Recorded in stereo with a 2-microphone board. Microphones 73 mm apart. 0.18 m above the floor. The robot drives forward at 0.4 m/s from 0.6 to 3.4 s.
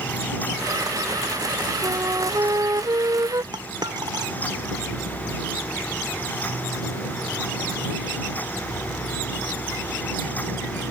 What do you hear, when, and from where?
1.8 s a flute: 50° right (ahead or behind); by 3.4 s 60° right (ahead or behind)
3.5 s a dropped coin: 75° right (ahead or behind)